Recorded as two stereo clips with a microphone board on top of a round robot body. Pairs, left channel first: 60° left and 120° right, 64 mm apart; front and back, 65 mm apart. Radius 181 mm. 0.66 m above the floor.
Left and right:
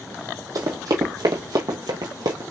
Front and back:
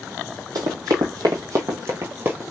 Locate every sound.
0.6 s running footsteps: 150° right, 1.7 m; by 2.4 s 120° right, 0.9 m